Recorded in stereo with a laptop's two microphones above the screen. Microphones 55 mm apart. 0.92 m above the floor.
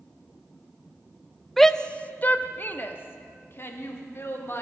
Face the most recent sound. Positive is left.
turn(degrees=50)  # may be behind; listen again after turning